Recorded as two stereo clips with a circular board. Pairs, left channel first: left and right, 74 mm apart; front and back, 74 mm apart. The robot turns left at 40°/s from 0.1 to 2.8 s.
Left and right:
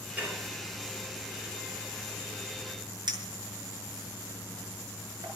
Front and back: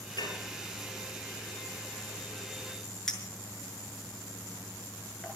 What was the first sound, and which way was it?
Dishes clattering, 20° right.